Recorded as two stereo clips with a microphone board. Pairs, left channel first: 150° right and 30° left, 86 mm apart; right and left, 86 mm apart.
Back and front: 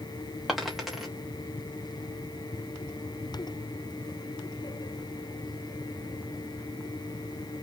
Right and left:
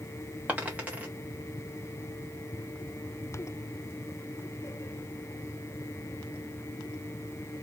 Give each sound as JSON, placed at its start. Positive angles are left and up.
{"t": 0.5, "sound": "a dropped coin", "azimuth_deg": 115, "distance_m": 1.1}